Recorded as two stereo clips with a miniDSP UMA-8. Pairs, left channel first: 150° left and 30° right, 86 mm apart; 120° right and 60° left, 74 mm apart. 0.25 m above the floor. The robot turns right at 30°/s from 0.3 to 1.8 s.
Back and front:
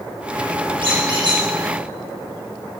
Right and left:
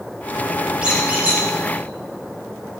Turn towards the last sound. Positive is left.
turn(degrees=15)